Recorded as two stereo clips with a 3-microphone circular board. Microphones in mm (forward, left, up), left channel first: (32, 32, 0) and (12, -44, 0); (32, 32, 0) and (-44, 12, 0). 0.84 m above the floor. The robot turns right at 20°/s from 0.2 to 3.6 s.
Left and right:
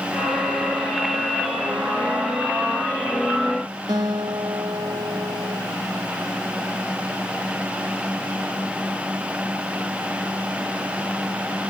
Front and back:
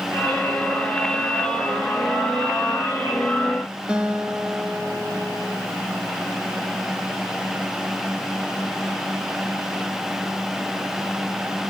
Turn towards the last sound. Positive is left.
turn(degrees=-90)